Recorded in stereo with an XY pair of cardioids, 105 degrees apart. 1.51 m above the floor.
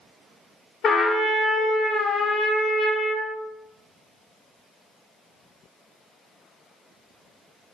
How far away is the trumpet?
About 0.7 m.